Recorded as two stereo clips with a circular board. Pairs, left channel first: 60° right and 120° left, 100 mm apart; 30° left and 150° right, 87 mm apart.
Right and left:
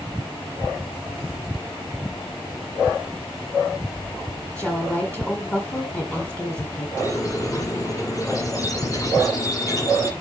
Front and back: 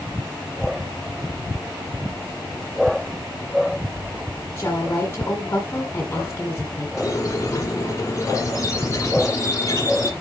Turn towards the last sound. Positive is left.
turn(degrees=-15)